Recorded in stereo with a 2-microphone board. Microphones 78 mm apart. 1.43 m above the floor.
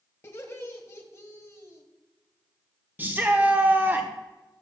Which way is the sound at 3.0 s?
25° right (ahead or behind).